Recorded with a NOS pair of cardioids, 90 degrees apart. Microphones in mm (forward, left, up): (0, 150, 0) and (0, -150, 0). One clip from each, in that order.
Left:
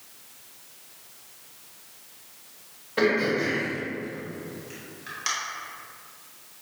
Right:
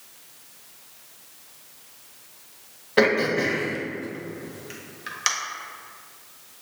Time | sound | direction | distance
3.0 | throat clearing | 35° right | 1.0 m